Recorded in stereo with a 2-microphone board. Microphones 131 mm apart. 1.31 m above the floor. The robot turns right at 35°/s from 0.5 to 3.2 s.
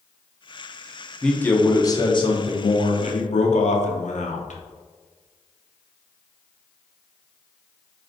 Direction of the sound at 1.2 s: 5° left.